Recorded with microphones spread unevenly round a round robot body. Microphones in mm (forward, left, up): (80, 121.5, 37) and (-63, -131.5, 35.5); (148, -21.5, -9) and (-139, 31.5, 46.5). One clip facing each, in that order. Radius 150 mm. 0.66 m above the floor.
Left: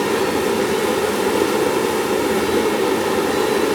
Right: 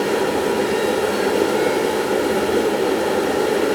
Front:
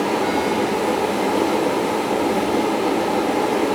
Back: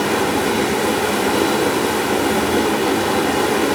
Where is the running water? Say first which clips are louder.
Even, back 2 dB; 125° left, 0.9 m.